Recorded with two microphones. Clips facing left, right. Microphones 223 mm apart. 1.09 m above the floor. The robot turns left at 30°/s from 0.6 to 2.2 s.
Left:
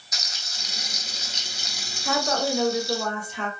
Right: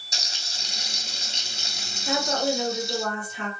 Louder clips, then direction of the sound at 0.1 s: Right 2 dB; 30° right (ahead or behind).